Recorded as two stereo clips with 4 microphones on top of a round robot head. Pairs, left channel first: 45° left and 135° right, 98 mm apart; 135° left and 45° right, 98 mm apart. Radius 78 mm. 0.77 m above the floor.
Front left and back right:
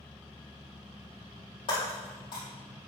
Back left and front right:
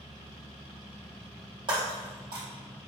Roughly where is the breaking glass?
Ahead.